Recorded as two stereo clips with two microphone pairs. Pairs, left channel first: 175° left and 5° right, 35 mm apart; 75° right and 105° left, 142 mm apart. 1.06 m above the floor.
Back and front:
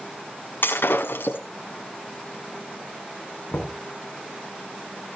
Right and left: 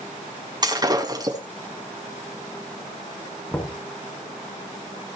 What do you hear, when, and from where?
0.6 s breaking glass: 170° left, 5.5 m
3.5 s knocking: 145° right, 6.5 m